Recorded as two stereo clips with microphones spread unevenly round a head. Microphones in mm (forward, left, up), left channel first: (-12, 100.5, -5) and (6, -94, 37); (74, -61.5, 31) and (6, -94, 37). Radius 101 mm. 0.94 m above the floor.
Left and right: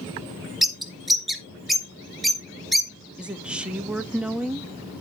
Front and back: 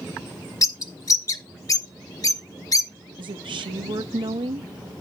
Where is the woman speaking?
170° right, 1.0 m.